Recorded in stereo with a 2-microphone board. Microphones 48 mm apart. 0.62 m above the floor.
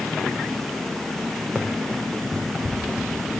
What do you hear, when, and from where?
1.6 s running footsteps: 35° right (ahead or behind), 2.5 m; by 3.3 s 25° right (ahead or behind), 3.5 m